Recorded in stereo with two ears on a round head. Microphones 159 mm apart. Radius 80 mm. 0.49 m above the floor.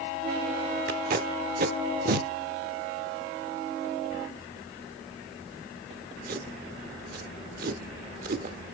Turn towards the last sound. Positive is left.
turn(degrees=-55)  # may be behind; listen again after turning